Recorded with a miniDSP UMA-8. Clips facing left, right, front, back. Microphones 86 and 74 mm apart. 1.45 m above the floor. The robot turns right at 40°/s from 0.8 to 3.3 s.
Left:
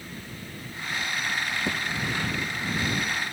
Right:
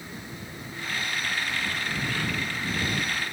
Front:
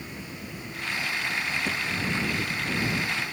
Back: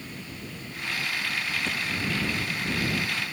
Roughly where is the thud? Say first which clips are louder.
Left 3 dB, front 1 dB; left.